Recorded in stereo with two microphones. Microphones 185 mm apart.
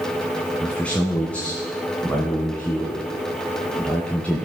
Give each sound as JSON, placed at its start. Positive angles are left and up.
{"t": 0.6, "sound": "a man speaking", "side_deg": 5, "distance_m": 1.7}